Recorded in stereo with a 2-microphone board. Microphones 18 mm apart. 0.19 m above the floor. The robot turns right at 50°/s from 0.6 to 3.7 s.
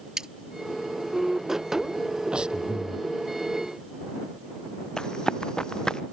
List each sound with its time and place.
0.2 s cutlery clinking: 40° right (ahead or behind)
2.3 s breathing: 65° right; by 3.1 s 30° right
5.0 s running footsteps: 45° left (ahead or behind)